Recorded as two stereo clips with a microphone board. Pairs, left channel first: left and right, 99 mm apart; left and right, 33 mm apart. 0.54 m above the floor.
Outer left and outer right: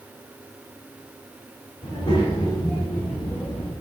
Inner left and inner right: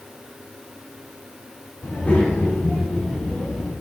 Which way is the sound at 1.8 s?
50° left (ahead or behind).